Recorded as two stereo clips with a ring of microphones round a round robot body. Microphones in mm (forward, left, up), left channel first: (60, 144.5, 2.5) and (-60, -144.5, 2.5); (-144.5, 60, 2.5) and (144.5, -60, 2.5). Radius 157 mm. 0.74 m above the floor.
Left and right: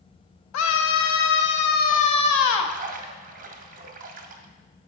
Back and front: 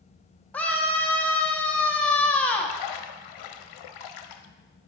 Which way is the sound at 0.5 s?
75° left.